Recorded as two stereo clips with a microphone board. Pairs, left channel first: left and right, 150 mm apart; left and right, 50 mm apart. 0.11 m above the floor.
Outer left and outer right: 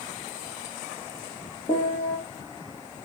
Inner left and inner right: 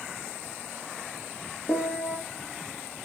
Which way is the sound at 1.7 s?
35° left (ahead or behind).